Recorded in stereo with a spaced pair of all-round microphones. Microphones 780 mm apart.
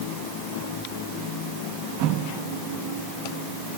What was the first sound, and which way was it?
Only background noise.